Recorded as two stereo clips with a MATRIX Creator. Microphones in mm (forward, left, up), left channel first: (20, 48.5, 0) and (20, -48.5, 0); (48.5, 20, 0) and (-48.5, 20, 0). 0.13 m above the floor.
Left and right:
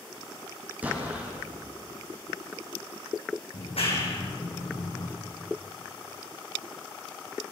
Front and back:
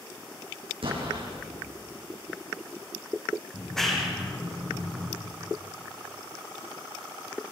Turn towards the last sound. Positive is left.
turn(degrees=85)